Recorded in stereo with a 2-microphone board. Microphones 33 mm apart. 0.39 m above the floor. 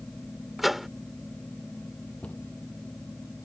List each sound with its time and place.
0.6 s a microwave: 5° right (ahead or behind)
2.2 s a cupboard door: 45° left (ahead or behind)